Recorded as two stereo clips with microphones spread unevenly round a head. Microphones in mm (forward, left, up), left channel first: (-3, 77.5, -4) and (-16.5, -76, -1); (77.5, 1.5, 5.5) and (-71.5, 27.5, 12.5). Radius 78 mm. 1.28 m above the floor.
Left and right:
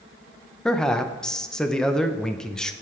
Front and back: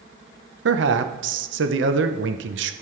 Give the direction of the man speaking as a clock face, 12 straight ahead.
6 o'clock.